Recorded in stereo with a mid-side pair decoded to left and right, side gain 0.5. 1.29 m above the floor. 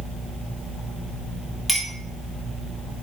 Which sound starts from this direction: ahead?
A clink, at 1.7 s.